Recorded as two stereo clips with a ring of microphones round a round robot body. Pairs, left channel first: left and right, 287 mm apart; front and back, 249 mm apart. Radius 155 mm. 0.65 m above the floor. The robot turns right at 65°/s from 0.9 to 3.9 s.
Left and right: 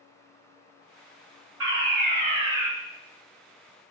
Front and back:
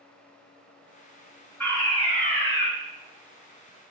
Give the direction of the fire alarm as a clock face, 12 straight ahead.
3 o'clock.